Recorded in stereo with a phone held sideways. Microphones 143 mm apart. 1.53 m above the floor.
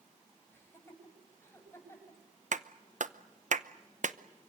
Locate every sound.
0.5 s laughter: 20° left (ahead or behind), 9 m
2.5 s a clap: 60° right (ahead or behind), 0.8 m